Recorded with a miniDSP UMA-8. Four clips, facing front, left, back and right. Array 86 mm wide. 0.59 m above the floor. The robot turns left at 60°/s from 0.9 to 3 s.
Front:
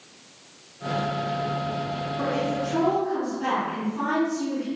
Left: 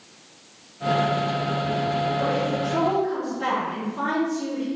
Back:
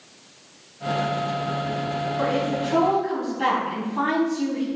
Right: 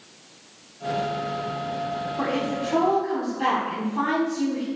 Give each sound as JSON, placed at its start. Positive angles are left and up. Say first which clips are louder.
{"t": 2.2, "sound": "a woman speaking", "louder": "left 2 dB, back 2 dB", "azimuth_deg": -105, "distance_m": 3.5}